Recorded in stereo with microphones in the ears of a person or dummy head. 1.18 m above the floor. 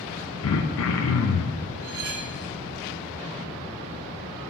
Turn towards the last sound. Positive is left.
turn(degrees=-60)  # may be behind; listen again after turning